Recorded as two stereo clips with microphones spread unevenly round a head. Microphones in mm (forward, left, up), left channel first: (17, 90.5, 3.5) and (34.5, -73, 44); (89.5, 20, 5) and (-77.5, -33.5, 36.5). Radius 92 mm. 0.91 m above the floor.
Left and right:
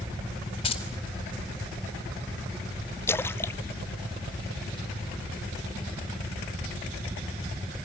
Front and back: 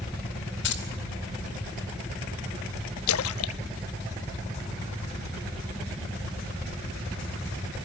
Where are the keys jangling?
40° left, 4.5 m.